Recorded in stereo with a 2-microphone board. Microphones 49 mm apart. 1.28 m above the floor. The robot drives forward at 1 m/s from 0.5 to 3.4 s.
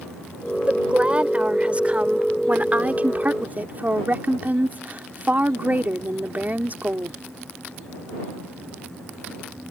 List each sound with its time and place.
0.7 s a woman speaking: 25° right (ahead or behind); by 7.2 s 40° right (ahead or behind)